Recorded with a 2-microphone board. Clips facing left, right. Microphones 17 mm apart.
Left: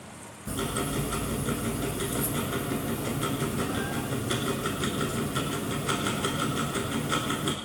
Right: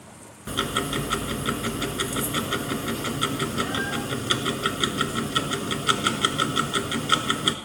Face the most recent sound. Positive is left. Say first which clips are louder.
# right 5 dB
turn(degrees=-50)  # may be behind; listen again after turning